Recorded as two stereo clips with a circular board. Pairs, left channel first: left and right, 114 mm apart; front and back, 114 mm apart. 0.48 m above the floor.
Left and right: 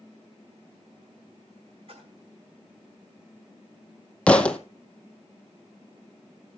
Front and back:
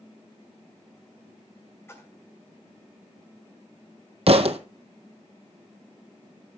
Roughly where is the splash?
Ahead right.